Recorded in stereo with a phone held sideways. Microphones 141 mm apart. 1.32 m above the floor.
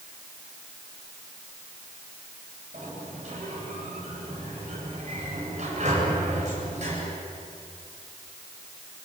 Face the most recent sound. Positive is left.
turn(degrees=-55)  # may be behind; listen again after turning